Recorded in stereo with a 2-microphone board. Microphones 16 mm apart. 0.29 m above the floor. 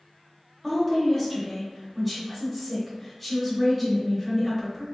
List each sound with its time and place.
0.6 s a woman speaking: 5° left (ahead or behind), 1.0 m